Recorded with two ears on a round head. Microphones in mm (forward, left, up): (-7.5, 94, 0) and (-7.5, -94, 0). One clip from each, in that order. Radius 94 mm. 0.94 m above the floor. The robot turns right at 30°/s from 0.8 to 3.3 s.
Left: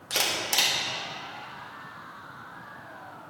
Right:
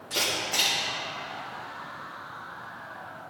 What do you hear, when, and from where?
0.1 s a camera shutter: 45° left (ahead or behind), 1.8 m